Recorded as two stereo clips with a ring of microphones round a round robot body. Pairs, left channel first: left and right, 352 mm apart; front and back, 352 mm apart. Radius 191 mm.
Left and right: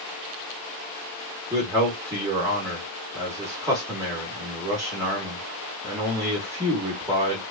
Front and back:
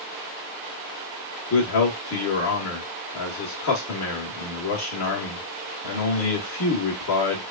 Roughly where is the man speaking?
Ahead.